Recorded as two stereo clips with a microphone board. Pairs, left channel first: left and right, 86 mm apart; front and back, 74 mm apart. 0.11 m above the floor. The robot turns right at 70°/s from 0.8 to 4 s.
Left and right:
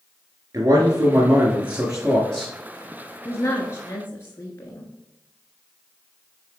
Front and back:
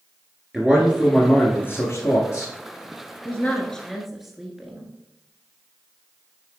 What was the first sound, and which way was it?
A man speaking, 95° right.